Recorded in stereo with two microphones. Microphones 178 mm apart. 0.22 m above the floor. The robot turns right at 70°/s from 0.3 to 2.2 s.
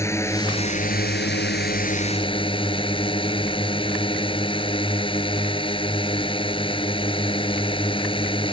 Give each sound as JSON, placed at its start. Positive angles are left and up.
{"t": 0.0, "sound": "a drone", "azimuth_deg": 15}